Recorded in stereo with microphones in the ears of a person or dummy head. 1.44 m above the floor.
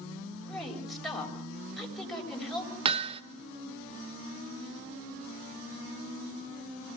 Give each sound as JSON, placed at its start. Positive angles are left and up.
{"t": 0.5, "sound": "a woman speaking", "side_deg": 5, "distance_m": 6.0}
{"t": 2.9, "sound": "hammering", "side_deg": -30, "distance_m": 1.2}